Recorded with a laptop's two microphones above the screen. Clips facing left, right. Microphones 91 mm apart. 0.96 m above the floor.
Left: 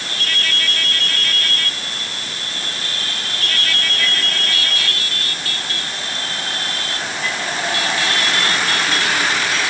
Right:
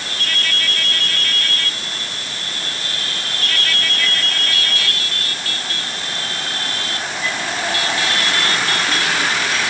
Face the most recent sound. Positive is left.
No sound to turn to.